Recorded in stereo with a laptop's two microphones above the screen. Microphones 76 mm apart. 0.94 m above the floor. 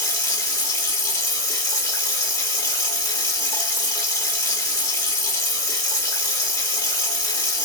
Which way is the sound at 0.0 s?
45° left (ahead or behind).